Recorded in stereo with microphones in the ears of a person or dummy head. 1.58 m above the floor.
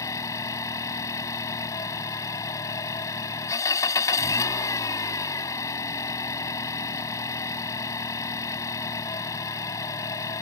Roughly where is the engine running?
Centre.